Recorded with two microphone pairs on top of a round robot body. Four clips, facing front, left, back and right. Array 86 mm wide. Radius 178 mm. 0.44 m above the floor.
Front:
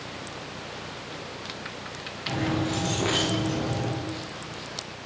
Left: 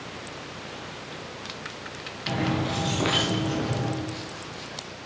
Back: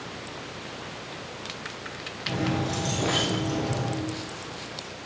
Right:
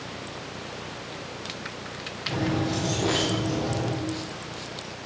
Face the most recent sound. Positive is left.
turn(degrees=75)